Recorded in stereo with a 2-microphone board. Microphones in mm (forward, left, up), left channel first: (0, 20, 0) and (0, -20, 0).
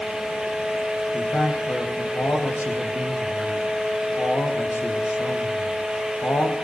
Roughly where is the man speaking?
Left.